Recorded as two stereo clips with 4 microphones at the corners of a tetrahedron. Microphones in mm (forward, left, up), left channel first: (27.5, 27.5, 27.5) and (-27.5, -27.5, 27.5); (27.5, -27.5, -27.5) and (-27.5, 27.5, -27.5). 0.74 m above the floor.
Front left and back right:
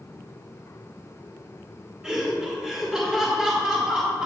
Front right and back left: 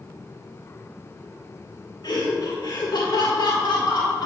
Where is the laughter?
55° right, 1.5 m.